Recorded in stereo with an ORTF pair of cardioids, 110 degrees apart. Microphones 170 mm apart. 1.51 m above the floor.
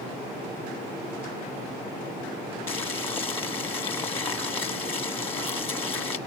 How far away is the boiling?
About 1.8 m.